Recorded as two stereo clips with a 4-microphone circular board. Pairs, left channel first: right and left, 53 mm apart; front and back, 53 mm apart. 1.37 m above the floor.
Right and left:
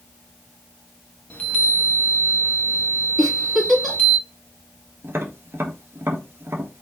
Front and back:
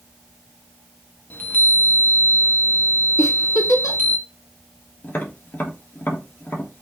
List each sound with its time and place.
1.3 s a chime: 40° right, 0.9 m
3.2 s a giggle: 5° right, 2 m
5.0 s tapping: 50° left, 1.2 m